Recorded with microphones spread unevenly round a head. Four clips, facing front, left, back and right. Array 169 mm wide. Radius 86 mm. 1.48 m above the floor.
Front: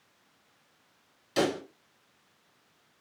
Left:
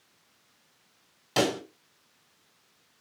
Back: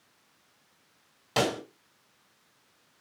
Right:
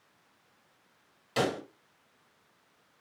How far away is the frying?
I don't hear frying.